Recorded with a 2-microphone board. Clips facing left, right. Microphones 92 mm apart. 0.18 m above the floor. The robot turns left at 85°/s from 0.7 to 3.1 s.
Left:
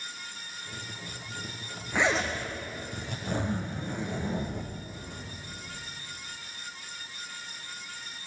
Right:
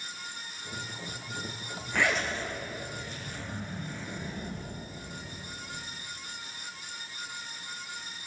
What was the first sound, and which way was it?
A zipper, 165° left.